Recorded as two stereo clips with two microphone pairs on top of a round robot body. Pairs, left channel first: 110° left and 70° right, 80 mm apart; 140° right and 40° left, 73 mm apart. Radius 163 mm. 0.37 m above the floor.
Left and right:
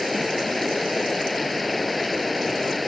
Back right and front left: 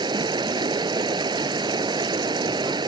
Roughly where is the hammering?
I don't hear hammering.